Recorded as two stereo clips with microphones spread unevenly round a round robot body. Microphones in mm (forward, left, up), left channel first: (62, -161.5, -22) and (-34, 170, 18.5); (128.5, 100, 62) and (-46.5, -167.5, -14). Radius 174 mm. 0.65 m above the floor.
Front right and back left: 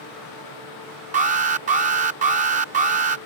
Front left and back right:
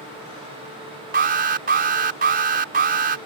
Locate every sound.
1.1 s an alarm: straight behind